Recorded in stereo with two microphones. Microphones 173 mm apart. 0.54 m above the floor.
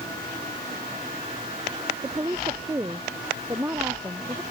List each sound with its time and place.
2.0 s a woman speaking: 15° right (ahead or behind)